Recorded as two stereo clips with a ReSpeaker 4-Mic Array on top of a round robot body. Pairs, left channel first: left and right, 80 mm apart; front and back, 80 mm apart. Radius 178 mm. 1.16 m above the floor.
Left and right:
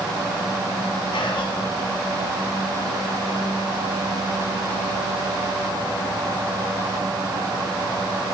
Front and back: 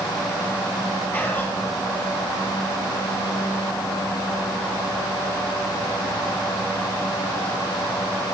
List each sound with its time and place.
1.1 s whispering: 60° left, 2.5 m